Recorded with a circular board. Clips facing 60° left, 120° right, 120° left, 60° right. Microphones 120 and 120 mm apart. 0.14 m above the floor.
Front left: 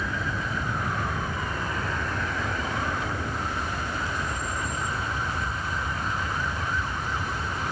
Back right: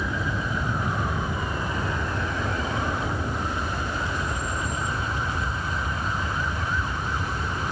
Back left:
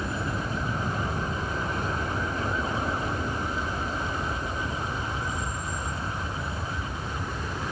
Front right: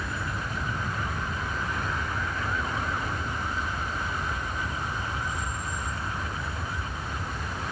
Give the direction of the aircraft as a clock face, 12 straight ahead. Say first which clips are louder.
Back right 2 dB, back left 3 dB; 6 o'clock.